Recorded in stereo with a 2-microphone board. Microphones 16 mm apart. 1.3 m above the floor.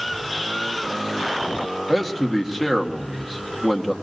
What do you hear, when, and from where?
1.9 s a man speaking: 5° right (ahead or behind), 1.8 m